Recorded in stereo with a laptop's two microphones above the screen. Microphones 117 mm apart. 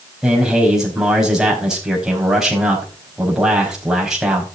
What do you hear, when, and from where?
0.2 s a man speaking: 5° right (ahead or behind), 4.5 m